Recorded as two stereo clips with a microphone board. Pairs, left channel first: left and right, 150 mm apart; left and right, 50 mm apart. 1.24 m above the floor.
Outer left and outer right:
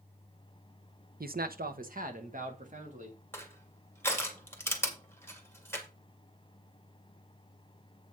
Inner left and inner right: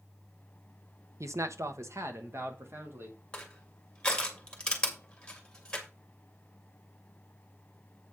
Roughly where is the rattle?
I don't hear a rattle.